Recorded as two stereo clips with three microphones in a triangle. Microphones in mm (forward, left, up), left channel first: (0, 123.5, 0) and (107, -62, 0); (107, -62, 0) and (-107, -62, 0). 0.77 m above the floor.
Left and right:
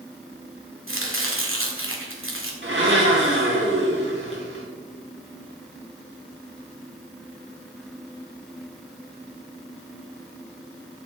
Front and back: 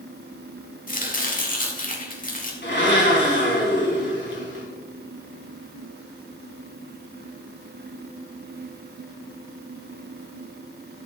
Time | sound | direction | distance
0.9 | chopping | 50° right | 1.9 m
2.6 | a blender | 35° right | 3 m